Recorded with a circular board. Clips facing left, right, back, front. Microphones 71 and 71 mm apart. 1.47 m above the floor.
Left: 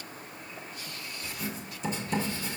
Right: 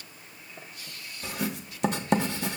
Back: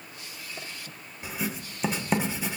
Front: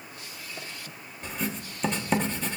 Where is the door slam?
No door slam in this recording.